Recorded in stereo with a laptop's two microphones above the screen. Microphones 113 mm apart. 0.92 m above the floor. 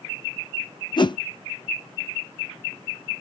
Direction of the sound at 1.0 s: 40° left (ahead or behind).